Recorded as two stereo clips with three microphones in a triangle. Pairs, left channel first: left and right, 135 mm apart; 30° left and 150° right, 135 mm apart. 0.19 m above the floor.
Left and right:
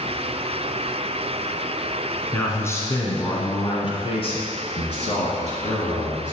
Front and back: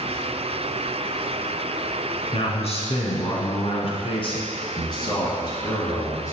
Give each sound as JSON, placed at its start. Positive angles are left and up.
{"t": 2.3, "sound": "a man speaking", "azimuth_deg": 20, "distance_m": 1.8}